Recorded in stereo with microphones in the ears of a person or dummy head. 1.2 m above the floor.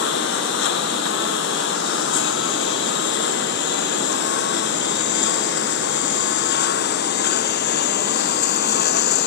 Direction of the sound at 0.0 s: 65° left (ahead or behind).